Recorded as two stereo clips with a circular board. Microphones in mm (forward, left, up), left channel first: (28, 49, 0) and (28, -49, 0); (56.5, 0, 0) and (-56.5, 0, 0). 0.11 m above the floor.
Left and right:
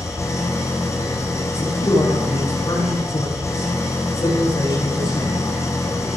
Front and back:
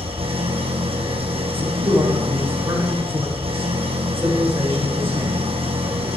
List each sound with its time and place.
0.0 s an engine running: 150° left, 3 m
1.5 s a man speaking: 115° left, 7.5 m